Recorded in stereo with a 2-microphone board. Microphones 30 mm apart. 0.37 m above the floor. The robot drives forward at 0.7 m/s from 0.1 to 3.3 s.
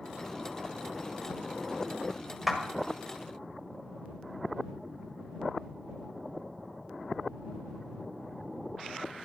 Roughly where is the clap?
Centre.